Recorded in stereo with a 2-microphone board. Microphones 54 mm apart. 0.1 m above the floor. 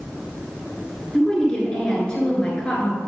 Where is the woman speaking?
20° left (ahead or behind), 1.8 m.